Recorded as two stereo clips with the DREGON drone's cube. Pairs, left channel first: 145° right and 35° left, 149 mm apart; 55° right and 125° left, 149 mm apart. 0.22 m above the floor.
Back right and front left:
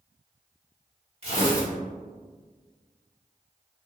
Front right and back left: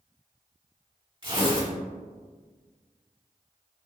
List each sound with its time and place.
1.2 s tearing paper: 75° left, 1.5 m